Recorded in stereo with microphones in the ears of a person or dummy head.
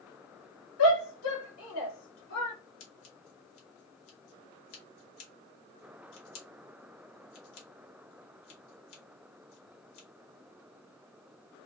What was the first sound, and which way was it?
A shout, 85° left.